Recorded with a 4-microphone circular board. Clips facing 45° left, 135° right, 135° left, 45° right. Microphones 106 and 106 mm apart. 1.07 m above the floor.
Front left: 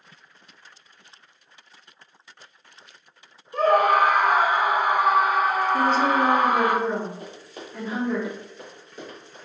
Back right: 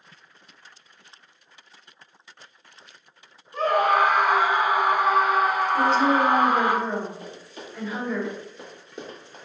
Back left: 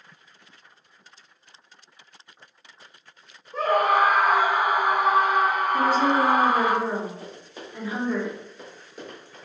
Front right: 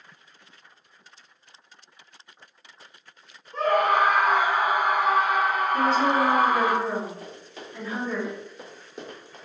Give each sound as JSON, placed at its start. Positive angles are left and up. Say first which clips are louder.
{"t": 3.5, "sound": "a scream", "louder": "front left 2 dB, back left 1 dB", "azimuth_deg": 50, "distance_m": 1.3}
{"t": 5.7, "sound": "a woman speaking", "louder": "back right 2 dB, back left 1 dB", "azimuth_deg": 60, "distance_m": 1.0}
{"t": 7.2, "sound": "running footsteps", "louder": "even, back left 1 dB", "azimuth_deg": 65, "distance_m": 1.8}